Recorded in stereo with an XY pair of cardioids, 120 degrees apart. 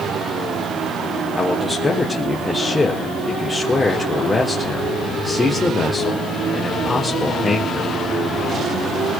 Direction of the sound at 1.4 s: 20° left.